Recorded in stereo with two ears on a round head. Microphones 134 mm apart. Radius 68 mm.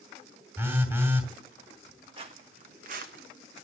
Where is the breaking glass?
I don't hear breaking glass.